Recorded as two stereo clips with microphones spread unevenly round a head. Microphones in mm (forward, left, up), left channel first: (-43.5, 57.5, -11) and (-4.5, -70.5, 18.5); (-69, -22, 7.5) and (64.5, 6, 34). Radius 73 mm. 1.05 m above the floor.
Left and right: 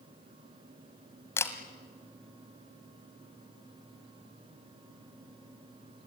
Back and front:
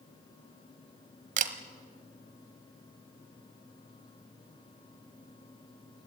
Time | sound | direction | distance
1.4 | a camera shutter | 25° left | 1.5 m